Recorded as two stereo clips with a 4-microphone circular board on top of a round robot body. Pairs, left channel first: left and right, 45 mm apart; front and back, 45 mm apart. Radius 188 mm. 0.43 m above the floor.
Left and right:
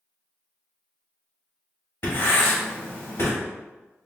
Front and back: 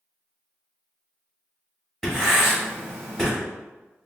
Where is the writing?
90° left, 1.7 m.